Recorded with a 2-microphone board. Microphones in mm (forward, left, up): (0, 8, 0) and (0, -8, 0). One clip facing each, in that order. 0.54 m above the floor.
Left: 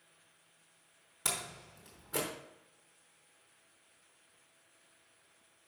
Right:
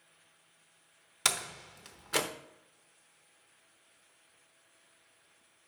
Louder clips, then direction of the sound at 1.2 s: Right 6 dB; 65° right (ahead or behind).